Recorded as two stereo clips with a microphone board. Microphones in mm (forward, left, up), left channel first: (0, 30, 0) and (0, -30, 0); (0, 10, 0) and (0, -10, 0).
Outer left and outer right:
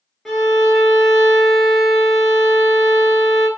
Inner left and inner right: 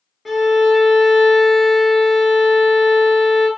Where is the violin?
5° left (ahead or behind), 0.6 m.